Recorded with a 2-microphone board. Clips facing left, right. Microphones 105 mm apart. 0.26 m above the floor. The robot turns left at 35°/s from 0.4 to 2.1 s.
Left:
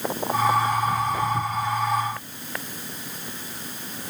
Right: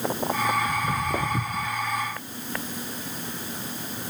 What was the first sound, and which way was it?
Footsteps, 85° right.